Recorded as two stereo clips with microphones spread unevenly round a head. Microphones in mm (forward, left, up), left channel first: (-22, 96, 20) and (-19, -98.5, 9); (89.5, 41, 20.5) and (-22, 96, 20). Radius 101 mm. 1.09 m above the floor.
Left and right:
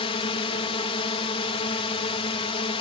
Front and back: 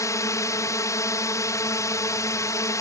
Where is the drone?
30° left.